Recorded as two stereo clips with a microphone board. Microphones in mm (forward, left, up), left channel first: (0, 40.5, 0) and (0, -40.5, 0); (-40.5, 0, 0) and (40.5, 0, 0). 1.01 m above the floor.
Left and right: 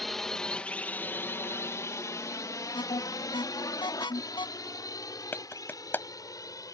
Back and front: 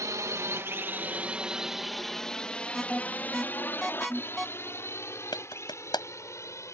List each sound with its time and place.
0.0 s a drone: straight ahead; by 6.7 s 130° left
2.7 s an alarm: 90° left
5.3 s a clap: 155° left